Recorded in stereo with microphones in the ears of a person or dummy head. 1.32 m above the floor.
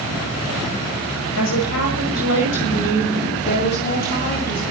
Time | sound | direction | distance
1.4 | a woman speaking | 65° left (ahead or behind) | 8 m